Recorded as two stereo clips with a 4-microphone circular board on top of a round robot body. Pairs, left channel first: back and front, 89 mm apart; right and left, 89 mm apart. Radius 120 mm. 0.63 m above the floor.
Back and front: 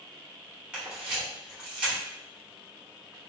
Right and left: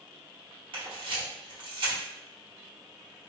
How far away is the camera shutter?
About 1.4 m.